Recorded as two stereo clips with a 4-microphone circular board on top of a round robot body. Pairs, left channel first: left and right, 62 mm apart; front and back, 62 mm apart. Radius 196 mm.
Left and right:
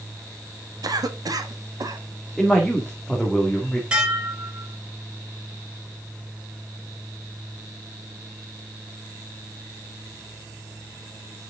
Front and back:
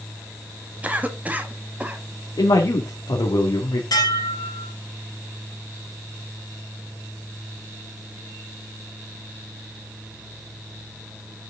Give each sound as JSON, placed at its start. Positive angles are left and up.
{"t": 0.8, "sound": "a cough", "azimuth_deg": -110, "distance_m": 1.6}
{"t": 2.4, "sound": "a man speaking", "azimuth_deg": 0, "distance_m": 2.0}
{"t": 3.9, "sound": "dishes clattering", "azimuth_deg": -15, "distance_m": 3.0}